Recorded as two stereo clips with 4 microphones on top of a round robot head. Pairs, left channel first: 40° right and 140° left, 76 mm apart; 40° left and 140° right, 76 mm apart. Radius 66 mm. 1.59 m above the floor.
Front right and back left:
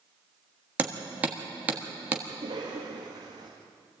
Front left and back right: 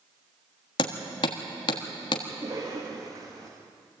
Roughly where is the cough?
Behind.